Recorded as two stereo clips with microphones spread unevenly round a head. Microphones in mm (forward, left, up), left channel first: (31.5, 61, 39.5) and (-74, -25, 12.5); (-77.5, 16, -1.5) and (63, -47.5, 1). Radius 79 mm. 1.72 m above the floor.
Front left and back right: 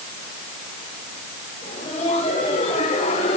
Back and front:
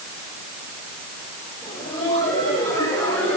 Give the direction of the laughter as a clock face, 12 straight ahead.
9 o'clock.